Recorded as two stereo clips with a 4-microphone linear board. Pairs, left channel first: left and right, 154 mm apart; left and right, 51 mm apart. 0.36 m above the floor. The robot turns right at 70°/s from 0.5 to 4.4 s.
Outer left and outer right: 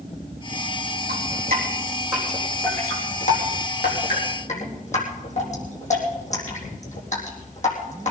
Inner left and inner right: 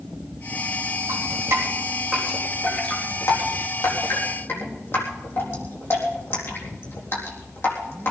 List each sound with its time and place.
1.1 s dripping: 80° right, 4 m; by 8.1 s 50° left (ahead or behind), 4 m